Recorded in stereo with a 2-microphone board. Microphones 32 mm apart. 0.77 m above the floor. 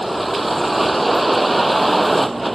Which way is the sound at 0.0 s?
Centre (ahead or behind).